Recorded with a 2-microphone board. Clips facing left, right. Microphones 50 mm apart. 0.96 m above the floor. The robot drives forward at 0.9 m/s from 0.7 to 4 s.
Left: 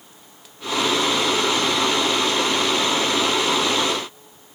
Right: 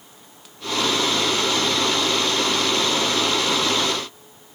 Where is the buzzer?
No buzzer in this recording.